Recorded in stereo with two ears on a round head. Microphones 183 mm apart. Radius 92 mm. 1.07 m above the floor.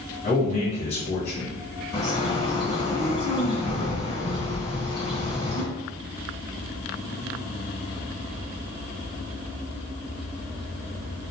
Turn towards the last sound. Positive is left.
turn(degrees=25)  # may be behind; listen again after turning